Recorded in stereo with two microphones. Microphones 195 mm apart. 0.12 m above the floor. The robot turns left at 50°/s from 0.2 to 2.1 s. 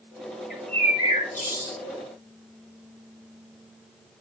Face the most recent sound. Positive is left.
turn(degrees=100)